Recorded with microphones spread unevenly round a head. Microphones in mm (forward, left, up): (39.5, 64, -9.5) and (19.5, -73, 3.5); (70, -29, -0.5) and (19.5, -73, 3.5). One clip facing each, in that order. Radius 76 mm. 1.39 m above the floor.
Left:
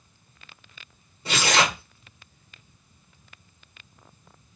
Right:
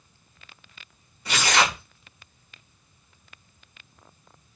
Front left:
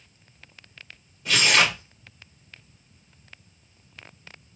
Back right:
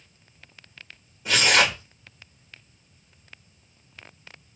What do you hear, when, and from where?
1.2 s tearing paper: 145° left, 1.4 m